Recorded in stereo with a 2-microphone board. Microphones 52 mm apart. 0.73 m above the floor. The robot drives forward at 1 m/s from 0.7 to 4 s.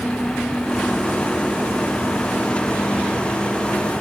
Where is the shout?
I don't hear a shout.